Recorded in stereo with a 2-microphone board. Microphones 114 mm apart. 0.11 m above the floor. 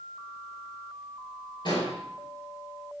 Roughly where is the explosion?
Left.